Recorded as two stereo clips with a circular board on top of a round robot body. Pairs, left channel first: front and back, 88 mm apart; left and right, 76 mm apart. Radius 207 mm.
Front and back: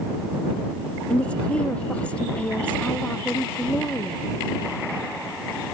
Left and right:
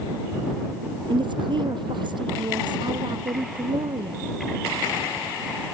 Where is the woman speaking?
75° right.